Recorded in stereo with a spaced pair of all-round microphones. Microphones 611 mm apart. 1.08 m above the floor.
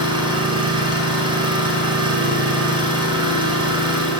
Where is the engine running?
5° right (ahead or behind), 3 m.